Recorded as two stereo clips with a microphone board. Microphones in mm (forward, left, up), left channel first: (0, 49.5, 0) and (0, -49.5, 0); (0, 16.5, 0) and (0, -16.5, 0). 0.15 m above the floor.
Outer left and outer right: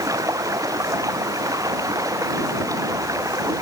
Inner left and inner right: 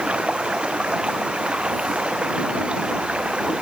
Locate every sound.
0.0 s running water: 35° right (ahead or behind)